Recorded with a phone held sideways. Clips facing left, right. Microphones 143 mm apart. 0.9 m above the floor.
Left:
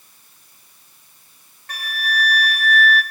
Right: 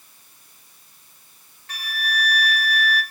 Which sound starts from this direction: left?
A flute, at 1.7 s.